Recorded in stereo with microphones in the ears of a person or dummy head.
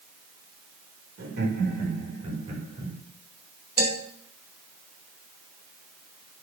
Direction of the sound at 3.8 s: 70° right (ahead or behind).